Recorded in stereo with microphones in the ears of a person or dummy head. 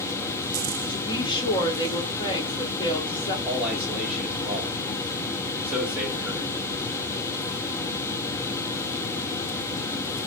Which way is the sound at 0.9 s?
20° left (ahead or behind).